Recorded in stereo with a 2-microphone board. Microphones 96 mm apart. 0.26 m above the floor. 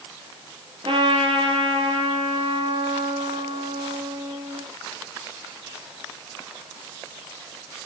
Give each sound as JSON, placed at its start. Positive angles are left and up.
{"t": 0.8, "sound": "a trumpet", "side_deg": -65, "distance_m": 4.5}